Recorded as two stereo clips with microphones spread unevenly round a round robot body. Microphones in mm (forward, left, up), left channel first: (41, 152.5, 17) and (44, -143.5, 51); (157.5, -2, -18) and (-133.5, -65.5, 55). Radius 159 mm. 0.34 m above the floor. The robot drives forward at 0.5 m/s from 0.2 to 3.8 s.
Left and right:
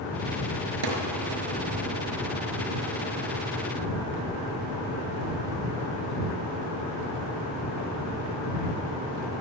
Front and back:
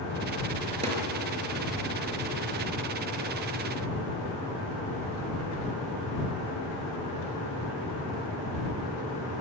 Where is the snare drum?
100° right, 5 m.